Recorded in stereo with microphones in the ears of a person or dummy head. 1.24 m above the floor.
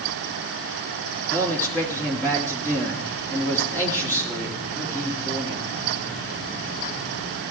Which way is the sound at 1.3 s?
15° left (ahead or behind).